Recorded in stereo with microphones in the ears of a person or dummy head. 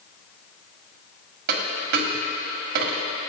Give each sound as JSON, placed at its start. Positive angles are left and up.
{"t": 1.5, "sound": "a dropped coin", "side_deg": -55, "distance_m": 1.6}